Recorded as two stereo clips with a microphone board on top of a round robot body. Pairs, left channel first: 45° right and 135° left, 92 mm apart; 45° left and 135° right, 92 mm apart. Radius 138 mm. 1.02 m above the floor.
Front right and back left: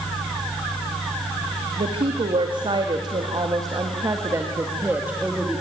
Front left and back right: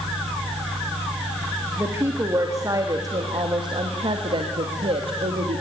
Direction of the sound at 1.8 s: 160° left.